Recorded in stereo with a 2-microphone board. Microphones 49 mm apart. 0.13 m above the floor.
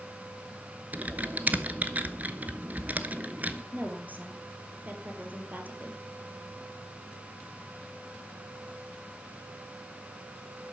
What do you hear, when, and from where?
0.9 s typing on a keyboard: 35° right (ahead or behind), 0.8 m
3.7 s a woman speaking: 35° right (ahead or behind), 2.5 m